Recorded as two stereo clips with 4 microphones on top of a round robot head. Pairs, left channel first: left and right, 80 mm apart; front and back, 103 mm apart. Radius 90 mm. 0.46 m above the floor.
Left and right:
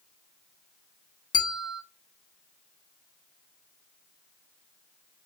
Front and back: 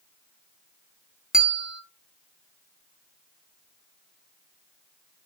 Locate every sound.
1.3 s a bell: 100° left, 0.8 m